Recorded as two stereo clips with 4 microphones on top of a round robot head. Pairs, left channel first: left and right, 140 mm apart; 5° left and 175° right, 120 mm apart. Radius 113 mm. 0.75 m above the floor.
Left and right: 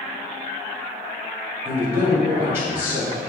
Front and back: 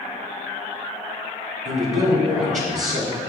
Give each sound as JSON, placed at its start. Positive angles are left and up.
{"t": 1.6, "sound": "a man speaking", "azimuth_deg": -165, "distance_m": 3.0}